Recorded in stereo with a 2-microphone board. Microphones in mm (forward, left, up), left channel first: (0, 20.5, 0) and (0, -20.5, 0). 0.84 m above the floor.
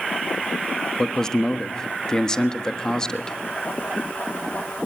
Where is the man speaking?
15° left (ahead or behind), 1.2 m.